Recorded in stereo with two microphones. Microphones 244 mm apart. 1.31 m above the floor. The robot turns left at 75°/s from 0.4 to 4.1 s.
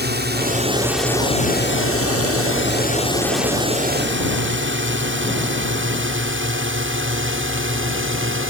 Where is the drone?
45° right (ahead or behind); by 8.5 s 55° right (ahead or behind).